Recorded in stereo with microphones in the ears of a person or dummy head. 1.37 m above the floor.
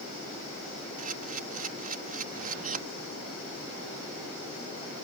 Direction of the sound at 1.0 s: 40° right (ahead or behind).